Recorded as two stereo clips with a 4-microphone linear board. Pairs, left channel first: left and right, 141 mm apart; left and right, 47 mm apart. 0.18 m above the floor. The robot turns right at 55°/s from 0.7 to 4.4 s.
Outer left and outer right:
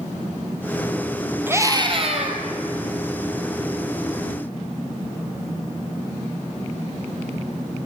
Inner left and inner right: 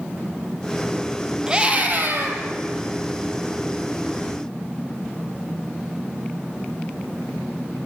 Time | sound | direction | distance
1.5 | a scream | 165° right | 4.5 m